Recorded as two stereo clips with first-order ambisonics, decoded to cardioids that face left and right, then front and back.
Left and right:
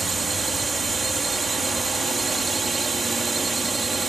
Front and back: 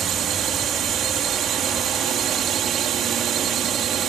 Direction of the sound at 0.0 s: 155° right.